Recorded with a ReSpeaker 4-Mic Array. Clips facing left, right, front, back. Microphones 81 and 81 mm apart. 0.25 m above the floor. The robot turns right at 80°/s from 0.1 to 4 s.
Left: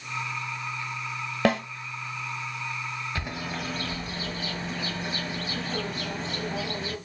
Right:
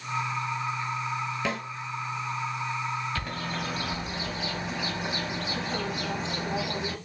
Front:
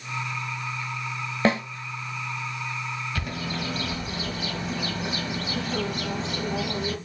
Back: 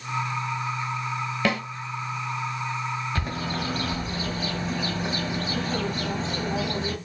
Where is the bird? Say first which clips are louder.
Right 1 dB, back 2 dB; 145° left, 1.0 m; by 7.0 s 150° right, 1.0 m.